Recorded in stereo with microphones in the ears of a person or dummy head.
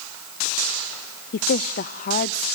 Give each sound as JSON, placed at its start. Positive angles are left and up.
{"t": 1.3, "sound": "a woman speaking", "side_deg": 35, "distance_m": 0.6}